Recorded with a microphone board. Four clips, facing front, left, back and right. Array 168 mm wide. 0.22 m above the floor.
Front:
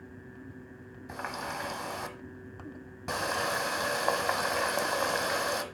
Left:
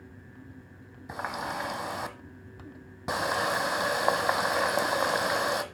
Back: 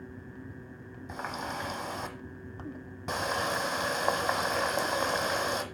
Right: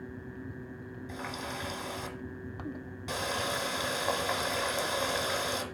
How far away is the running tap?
About 1.0 m.